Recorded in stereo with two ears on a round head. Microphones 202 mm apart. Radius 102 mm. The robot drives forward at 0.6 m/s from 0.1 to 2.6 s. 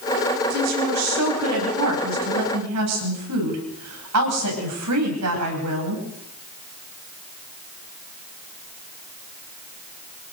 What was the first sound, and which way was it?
A woman speaking, 85° right.